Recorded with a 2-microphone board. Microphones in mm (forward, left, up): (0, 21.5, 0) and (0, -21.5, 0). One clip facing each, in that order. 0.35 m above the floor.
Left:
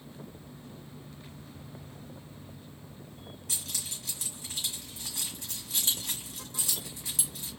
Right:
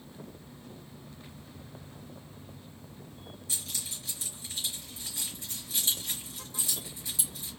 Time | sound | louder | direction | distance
3.5 | keys jangling | left 1 dB | 60° left (ahead or behind) | 1.7 m